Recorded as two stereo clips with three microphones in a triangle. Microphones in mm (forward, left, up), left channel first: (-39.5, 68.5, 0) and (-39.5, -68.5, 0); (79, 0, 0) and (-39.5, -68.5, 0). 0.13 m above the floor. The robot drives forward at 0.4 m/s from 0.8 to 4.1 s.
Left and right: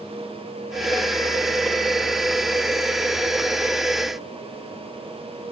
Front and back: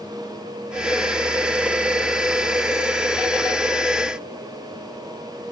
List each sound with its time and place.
Only background noise.